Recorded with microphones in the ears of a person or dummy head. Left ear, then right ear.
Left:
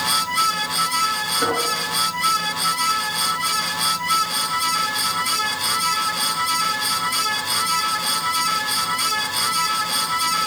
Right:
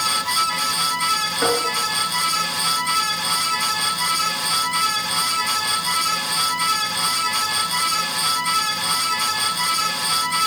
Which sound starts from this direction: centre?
Tapping, at 1.4 s.